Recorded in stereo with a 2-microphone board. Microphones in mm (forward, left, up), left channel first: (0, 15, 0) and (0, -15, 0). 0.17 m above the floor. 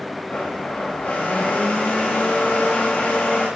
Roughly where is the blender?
Left.